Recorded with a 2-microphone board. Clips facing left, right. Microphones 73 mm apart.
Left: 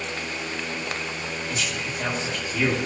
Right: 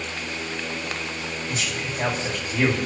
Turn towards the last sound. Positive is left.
turn(degrees=-40)  # may be behind; listen again after turning